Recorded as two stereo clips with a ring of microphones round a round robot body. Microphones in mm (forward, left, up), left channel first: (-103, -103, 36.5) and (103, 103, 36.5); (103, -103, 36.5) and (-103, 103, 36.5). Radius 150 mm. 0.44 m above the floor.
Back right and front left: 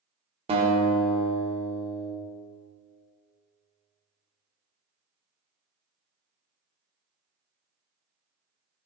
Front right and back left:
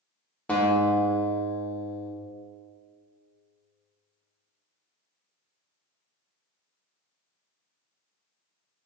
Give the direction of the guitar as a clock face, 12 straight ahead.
11 o'clock.